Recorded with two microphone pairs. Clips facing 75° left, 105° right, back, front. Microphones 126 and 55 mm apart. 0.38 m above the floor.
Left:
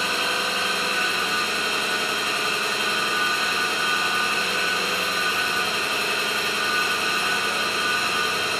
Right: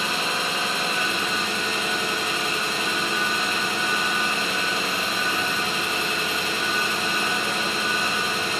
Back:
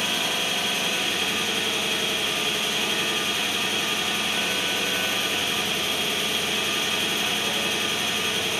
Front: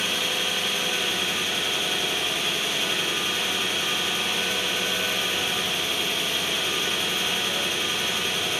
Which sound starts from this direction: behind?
An engine running, at 0.0 s.